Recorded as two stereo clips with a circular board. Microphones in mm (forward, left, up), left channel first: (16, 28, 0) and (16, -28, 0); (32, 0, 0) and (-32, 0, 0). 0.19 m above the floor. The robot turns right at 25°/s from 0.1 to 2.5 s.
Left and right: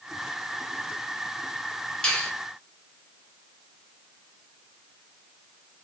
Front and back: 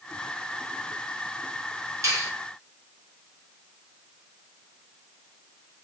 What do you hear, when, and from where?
2.0 s a finger snap: 165° left, 2 m; by 2.3 s 170° left, 2 m